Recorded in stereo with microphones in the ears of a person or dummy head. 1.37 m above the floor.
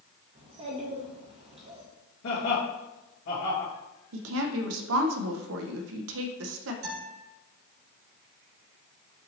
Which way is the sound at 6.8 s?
75° right (ahead or behind).